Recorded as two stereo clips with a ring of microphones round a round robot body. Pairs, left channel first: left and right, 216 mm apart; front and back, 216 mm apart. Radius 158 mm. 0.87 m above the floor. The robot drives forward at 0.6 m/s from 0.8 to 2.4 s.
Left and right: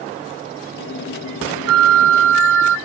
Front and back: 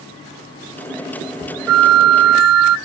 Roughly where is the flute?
Behind right.